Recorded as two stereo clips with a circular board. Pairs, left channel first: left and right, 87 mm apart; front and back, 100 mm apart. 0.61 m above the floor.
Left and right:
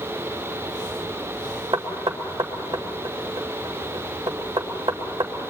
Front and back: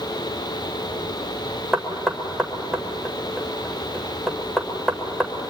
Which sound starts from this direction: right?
Knocking, at 1.7 s.